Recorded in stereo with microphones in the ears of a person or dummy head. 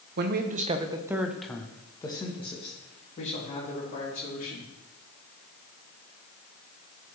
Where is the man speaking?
55° right (ahead or behind), 0.8 m; by 4.7 s 45° left (ahead or behind), 3 m.